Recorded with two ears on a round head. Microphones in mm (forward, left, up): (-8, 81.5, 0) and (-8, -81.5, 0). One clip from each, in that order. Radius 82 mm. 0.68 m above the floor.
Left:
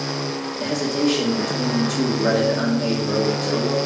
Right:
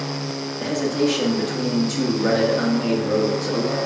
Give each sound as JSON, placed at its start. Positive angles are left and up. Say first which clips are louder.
{"t": 0.6, "sound": "a man speaking", "louder": "even", "side_deg": 0, "distance_m": 1.3}